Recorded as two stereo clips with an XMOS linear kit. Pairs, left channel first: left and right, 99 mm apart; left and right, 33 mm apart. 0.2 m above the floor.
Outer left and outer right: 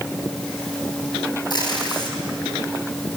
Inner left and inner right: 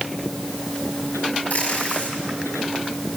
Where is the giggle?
I don't hear a giggle.